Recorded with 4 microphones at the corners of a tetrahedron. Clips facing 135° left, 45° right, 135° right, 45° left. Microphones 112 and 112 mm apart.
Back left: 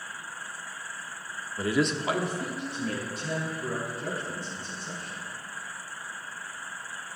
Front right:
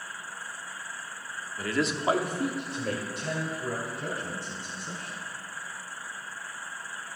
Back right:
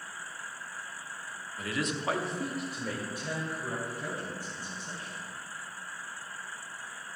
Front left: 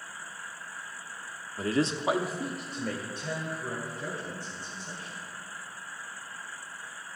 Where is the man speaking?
90° left, 0.8 m; by 5.2 s 60° right, 5 m.